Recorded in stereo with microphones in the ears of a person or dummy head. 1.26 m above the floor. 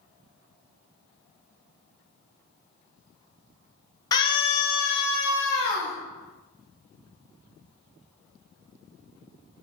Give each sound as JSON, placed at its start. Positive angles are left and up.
{"t": 4.1, "sound": "a scream", "side_deg": 20, "distance_m": 0.6}